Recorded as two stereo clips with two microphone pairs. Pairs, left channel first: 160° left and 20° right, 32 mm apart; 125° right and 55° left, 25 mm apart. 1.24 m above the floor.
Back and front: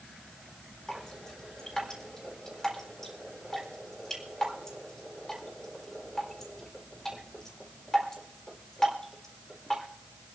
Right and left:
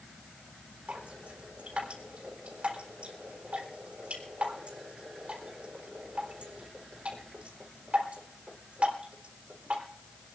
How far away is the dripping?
About 4 m.